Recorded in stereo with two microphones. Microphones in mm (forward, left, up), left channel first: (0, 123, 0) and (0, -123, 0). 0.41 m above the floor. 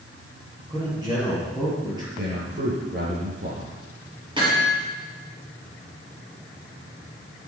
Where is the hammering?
20° right (ahead or behind), 7 m.